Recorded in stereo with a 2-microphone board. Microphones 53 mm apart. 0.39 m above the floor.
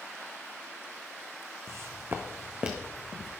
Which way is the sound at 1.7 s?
60° right (ahead or behind).